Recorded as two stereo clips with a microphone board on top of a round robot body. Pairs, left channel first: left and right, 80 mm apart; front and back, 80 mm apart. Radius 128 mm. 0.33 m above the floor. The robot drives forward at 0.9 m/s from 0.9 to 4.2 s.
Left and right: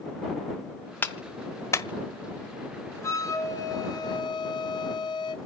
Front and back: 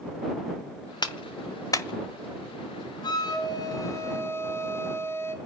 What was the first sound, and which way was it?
A clap, 25° left.